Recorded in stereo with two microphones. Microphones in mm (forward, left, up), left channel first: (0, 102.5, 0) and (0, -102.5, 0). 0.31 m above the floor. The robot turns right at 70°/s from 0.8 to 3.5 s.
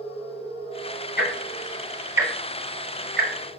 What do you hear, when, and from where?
1.2 s ticking: 55° left (ahead or behind), 0.8 m; by 3.6 s 65° right (ahead or behind), 0.8 m